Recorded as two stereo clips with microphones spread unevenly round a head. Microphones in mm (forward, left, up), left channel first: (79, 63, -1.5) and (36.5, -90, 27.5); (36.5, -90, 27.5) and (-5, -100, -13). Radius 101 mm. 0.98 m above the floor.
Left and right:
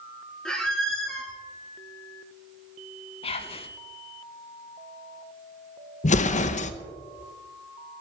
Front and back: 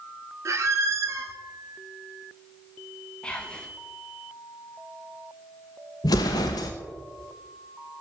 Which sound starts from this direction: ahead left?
An explosion, at 6.0 s.